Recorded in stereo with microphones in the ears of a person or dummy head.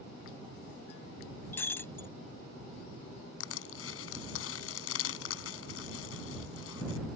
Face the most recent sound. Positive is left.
turn(degrees=85)